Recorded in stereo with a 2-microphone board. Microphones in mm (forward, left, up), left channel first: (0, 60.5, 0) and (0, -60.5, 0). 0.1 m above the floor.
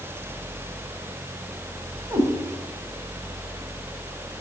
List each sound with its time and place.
2.1 s a cat meowing: 25° right (ahead or behind), 3 m